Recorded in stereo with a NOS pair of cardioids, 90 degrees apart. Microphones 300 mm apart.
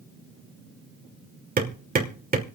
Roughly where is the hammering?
Ahead right.